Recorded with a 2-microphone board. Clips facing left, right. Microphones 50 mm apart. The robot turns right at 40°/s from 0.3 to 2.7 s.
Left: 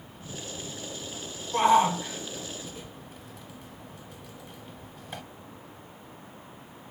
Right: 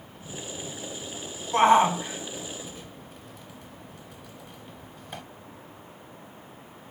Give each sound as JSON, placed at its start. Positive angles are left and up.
{"t": 1.5, "sound": "a shout", "side_deg": -45, "distance_m": 0.8}